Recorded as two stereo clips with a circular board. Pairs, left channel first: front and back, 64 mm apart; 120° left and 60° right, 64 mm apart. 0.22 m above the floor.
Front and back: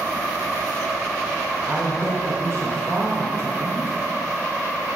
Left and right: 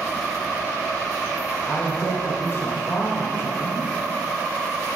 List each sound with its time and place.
1.7 s a woman speaking: 155° left, 1.8 m